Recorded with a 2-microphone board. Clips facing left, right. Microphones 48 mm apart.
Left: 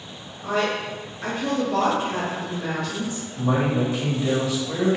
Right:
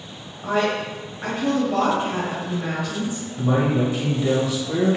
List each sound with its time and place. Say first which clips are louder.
0.4 s a woman speaking: right 2 dB; 20° right (ahead or behind), 1.0 m
3.4 s a man speaking: right 2 dB; centre (ahead or behind), 1.2 m